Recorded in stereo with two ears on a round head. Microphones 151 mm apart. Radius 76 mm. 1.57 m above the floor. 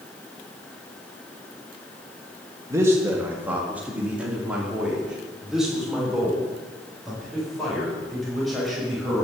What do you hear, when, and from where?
2.7 s a man speaking: 20° right (ahead or behind), 1.6 m; by 9.2 s centre (ahead or behind), 7 m